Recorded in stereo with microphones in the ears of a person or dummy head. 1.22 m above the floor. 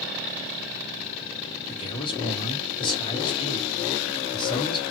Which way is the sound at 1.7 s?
30° left (ahead or behind).